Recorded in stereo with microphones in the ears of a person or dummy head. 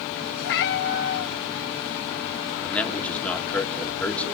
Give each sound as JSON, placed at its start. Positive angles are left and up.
{"t": 0.4, "sound": "a cat meowing", "side_deg": 55, "distance_m": 1.3}
{"t": 2.6, "sound": "a man speaking", "side_deg": 5, "distance_m": 2.5}